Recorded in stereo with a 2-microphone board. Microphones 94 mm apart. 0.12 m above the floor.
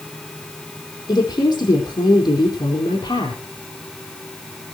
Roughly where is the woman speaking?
Left.